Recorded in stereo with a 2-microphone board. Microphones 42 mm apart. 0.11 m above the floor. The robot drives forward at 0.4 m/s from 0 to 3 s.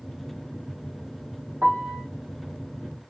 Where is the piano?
65° right (ahead or behind), 1.4 m; by 2.1 s 55° right (ahead or behind), 1.4 m.